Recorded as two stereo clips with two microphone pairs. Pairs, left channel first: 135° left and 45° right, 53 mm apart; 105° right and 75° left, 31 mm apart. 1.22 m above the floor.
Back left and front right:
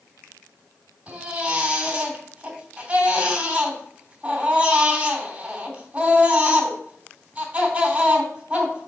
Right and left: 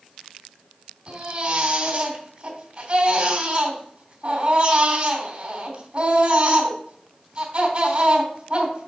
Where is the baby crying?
25° left, 3 m.